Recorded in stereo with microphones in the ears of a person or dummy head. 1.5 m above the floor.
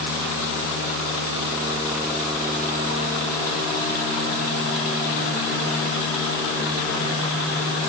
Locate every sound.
Only background noise.